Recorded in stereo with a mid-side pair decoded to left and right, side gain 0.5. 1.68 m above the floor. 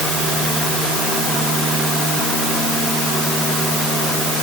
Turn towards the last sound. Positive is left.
No sound to turn to.